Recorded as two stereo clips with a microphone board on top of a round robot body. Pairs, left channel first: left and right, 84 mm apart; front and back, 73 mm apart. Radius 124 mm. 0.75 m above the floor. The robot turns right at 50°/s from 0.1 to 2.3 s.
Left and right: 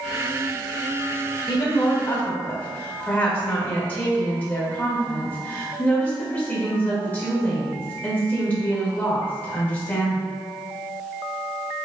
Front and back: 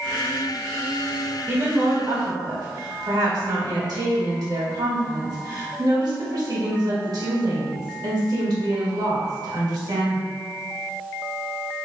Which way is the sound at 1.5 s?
120° left.